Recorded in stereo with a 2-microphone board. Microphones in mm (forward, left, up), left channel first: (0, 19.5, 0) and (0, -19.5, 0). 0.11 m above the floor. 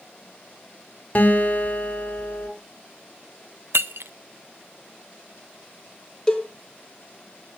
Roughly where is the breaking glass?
Right.